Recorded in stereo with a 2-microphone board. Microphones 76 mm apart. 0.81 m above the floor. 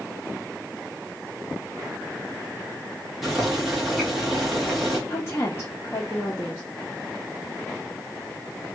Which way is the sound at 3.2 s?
Centre (ahead or behind).